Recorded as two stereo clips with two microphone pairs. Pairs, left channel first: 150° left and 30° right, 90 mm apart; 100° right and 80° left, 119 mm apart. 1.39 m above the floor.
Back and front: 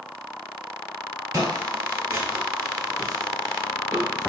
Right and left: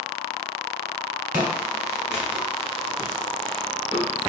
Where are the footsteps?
5° left, 1.6 m; by 4.3 s 160° right, 1.5 m.